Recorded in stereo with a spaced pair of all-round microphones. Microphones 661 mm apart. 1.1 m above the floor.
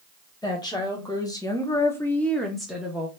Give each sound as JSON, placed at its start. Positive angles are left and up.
{"t": 0.4, "sound": "a woman speaking", "side_deg": 5, "distance_m": 1.4}